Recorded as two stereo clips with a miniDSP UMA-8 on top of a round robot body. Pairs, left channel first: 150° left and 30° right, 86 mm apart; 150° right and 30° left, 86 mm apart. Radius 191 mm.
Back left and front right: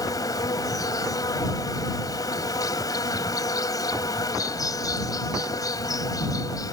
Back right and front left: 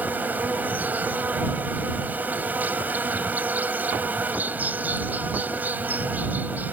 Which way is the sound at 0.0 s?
100° left.